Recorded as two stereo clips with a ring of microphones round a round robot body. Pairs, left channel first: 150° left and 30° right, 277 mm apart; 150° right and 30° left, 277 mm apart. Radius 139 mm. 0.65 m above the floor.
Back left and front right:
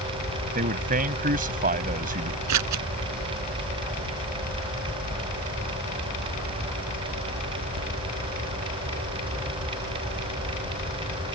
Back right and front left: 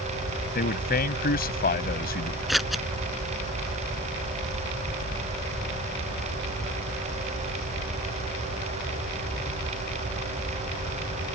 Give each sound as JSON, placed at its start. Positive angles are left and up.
{"t": 0.6, "sound": "a man speaking", "azimuth_deg": -90}
{"t": 2.5, "sound": "scissors", "azimuth_deg": -60}